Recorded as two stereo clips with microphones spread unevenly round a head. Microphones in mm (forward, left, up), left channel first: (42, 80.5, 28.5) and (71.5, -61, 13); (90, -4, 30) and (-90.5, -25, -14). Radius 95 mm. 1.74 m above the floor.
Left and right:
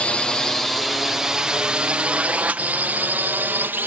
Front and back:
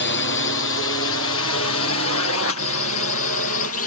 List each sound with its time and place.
0.0 s a drone: 20° left; by 3.9 s 5° right